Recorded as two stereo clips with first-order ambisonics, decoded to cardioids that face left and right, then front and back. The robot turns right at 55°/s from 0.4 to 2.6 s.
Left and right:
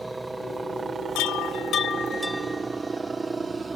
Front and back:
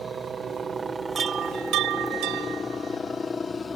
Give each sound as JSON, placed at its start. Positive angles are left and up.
{"t": 0.0, "sound": "a helicopter", "azimuth_deg": -160}
{"t": 1.1, "sound": "a chime", "azimuth_deg": 110}